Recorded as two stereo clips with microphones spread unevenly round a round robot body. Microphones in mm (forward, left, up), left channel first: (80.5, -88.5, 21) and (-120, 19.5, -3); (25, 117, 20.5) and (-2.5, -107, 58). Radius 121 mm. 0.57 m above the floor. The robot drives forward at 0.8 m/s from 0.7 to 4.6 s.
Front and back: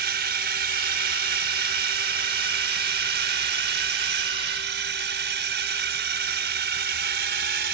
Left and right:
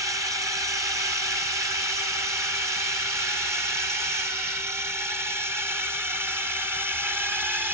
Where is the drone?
Straight behind; by 7.8 s 175° left.